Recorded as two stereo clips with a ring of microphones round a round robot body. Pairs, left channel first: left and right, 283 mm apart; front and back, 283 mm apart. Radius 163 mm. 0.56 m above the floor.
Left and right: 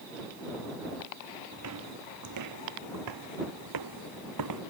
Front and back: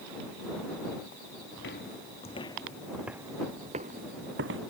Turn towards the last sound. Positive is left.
turn(degrees=-125)